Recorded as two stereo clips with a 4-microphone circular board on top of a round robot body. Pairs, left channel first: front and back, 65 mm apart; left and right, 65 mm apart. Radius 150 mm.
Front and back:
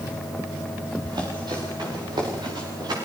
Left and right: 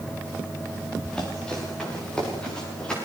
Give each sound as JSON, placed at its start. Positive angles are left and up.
{"t": 1.0, "sound": "running footsteps", "azimuth_deg": 165, "distance_m": 8.0}